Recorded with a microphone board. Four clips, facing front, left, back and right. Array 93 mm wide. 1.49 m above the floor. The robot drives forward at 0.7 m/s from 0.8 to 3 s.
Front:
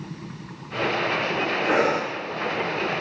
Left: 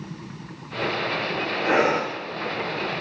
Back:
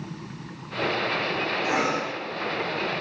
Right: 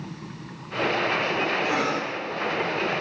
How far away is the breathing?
About 3 m.